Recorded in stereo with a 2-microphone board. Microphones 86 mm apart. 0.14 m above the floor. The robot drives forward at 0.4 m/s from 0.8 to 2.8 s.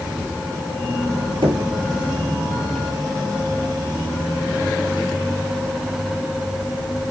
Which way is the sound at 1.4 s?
70° right (ahead or behind).